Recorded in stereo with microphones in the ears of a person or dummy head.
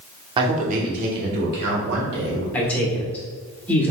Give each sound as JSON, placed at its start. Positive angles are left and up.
{"t": 0.4, "sound": "a man speaking", "side_deg": -30, "distance_m": 0.9}
{"t": 2.5, "sound": "a man speaking", "side_deg": 5, "distance_m": 1.1}